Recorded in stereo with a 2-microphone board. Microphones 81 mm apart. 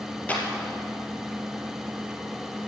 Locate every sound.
0.3 s a clap: 20° left (ahead or behind), 3 m